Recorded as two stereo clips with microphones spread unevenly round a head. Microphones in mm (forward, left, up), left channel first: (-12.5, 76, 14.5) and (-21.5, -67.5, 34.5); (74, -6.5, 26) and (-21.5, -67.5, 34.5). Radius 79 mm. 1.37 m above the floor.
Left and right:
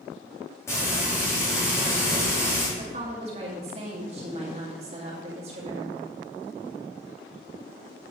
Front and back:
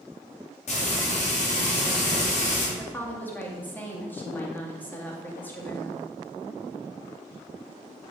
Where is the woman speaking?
40° right, 2.5 m.